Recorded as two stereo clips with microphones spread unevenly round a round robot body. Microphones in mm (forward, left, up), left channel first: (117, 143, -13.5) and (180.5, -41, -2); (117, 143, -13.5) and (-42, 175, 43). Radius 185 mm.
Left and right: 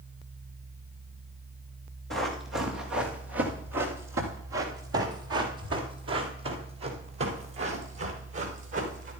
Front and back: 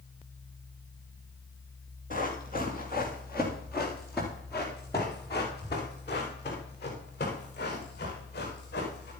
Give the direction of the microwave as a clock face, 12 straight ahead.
No microwave in this recording.